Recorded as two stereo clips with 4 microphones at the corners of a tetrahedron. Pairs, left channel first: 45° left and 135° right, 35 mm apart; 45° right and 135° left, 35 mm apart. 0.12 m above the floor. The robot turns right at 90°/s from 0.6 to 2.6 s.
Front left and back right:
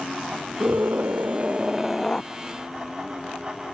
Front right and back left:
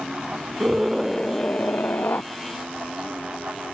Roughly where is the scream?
Behind.